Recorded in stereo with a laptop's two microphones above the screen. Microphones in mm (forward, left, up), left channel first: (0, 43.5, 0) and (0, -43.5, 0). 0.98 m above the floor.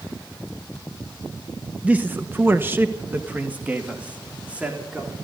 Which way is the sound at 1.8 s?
15° right (ahead or behind).